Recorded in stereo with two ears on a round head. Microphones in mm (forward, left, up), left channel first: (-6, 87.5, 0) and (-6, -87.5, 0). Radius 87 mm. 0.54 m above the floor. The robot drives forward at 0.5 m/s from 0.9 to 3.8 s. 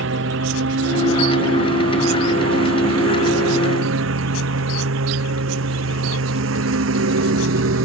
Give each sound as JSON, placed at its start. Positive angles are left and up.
{"t": 0.0, "sound": "a lawn mower", "side_deg": -70}